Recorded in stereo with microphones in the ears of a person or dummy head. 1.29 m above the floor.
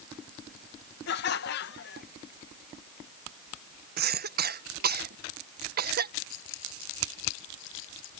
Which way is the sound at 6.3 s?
80° left.